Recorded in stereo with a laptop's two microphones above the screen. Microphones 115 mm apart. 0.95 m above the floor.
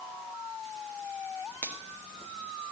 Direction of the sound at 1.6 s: 20° left (ahead or behind).